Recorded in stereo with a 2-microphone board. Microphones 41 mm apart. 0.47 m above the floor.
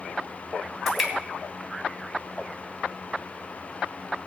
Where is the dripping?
5° right (ahead or behind), 3 m.